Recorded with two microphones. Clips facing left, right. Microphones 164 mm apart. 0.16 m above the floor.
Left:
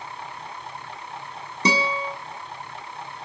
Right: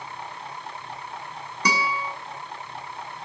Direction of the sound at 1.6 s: 25° left (ahead or behind).